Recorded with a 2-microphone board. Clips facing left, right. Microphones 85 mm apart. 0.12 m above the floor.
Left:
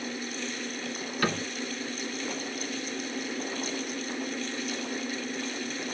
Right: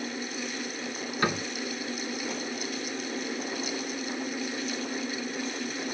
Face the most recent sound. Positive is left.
turn(degrees=-20)  # may be behind; listen again after turning